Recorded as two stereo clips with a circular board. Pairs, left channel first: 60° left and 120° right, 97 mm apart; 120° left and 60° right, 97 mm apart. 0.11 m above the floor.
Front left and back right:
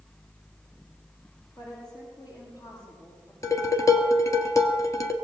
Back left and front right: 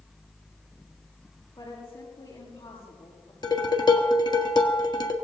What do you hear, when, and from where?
1.6 s a woman speaking: 100° left, 6.5 m
3.4 s dishes clattering: 105° left, 1.5 m